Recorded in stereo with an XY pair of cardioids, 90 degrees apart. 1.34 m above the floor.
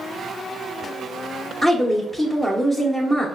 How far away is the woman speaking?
About 0.7 m.